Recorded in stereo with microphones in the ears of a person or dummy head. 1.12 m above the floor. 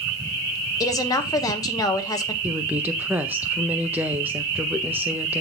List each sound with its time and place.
0.8 s a woman speaking: 20° left (ahead or behind), 1.1 m
2.4 s a woman speaking: 5° right (ahead or behind), 0.6 m